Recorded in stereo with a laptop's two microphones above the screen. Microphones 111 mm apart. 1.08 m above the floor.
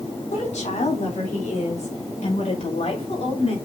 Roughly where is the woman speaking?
Left.